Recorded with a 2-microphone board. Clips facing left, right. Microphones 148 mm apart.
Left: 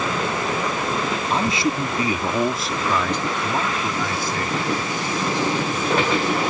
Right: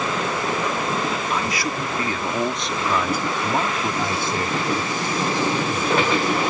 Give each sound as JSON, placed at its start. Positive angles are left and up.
{"t": 1.3, "sound": "a man speaking", "side_deg": 30}